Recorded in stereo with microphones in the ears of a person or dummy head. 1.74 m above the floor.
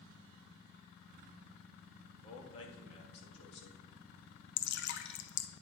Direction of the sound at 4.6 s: 65° left (ahead or behind).